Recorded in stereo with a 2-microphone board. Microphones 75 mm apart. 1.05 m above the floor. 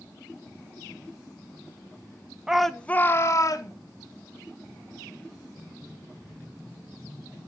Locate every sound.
2.5 s a shout: 10° right (ahead or behind), 0.6 m; by 3.7 s 55° left (ahead or behind), 0.9 m